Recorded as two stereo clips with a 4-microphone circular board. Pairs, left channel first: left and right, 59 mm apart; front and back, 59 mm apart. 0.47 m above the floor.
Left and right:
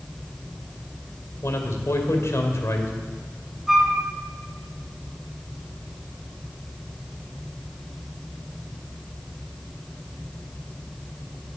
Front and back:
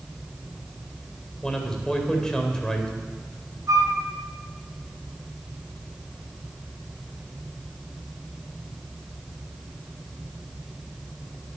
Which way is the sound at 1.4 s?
75° left.